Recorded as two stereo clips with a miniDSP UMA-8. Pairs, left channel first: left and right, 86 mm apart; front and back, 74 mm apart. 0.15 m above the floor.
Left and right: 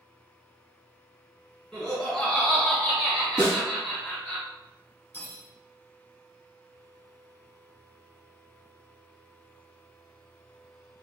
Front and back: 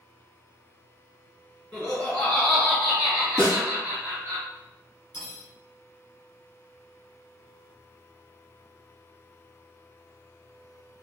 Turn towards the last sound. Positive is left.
turn(degrees=40)